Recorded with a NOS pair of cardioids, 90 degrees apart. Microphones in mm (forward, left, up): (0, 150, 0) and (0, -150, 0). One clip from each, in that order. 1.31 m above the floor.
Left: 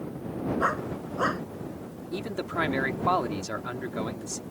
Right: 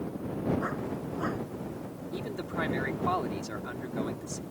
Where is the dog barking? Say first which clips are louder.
Left 6 dB; 65° left.